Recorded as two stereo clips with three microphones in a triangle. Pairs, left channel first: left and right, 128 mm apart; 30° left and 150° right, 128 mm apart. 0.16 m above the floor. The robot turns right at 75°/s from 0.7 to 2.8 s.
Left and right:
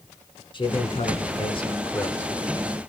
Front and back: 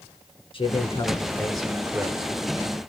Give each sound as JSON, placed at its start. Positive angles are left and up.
{"t": 0.5, "sound": "a man speaking", "azimuth_deg": 55, "distance_m": 1.7}